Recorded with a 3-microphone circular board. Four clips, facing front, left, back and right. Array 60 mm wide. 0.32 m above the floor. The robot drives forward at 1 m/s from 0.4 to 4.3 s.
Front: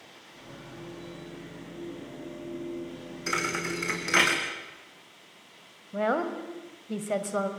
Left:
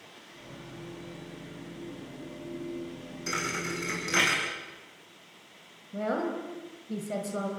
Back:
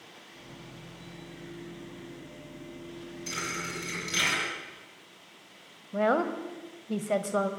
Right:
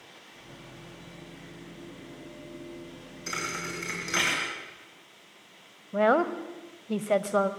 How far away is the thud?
About 6.5 m.